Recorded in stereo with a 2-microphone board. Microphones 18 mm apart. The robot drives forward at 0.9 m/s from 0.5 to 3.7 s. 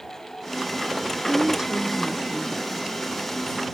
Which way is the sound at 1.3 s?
45° right (ahead or behind).